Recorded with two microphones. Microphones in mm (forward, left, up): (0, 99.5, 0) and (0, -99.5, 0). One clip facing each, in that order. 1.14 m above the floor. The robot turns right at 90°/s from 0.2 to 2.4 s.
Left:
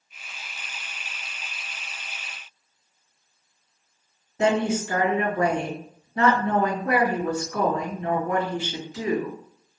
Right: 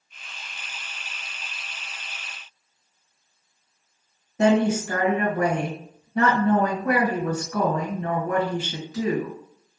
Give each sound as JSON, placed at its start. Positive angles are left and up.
{"t": 4.4, "sound": "a woman speaking", "side_deg": -70, "distance_m": 1.3}